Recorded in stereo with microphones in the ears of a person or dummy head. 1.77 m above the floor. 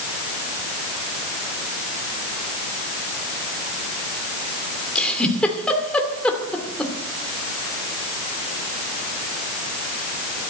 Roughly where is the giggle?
Centre.